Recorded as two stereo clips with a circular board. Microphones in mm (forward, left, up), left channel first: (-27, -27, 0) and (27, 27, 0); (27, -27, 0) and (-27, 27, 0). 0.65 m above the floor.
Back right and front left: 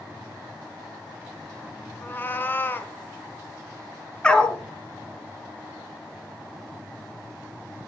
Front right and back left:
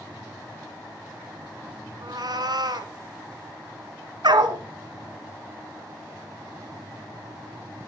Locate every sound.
2.0 s a cat meowing: 160° left, 1.6 m
4.2 s a dog barking: 150° left, 1.6 m